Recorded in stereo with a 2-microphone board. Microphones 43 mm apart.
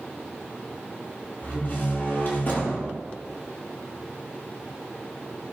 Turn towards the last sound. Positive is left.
turn(degrees=50)  # may be behind; listen again after turning